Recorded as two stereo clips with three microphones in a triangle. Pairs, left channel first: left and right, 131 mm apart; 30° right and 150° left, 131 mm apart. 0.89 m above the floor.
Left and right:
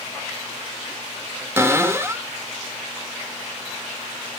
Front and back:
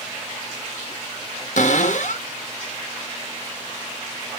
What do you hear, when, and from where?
1.6 s a cupboard door: 20° right, 1.4 m